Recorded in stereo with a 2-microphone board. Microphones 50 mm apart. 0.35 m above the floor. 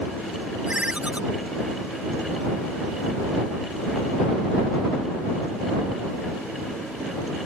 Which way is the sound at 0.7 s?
25° right (ahead or behind).